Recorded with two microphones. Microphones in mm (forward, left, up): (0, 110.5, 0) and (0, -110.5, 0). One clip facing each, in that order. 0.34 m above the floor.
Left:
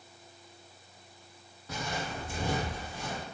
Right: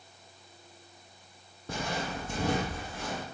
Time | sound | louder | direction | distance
1.7 | footsteps | right 2 dB | 55° right (ahead or behind) | 0.6 m